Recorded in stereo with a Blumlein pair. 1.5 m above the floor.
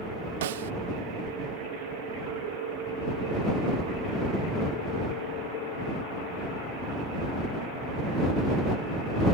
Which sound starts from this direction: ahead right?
A snare drum, at 0.4 s.